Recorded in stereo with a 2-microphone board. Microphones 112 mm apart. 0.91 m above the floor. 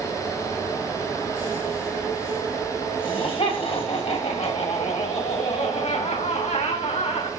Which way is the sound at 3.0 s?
55° left (ahead or behind).